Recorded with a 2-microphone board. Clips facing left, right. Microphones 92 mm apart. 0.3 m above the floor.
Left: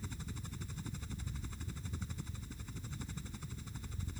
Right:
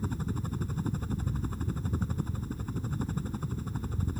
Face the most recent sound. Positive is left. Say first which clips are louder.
# right 13 dB
turn(degrees=-50)  # may be behind; listen again after turning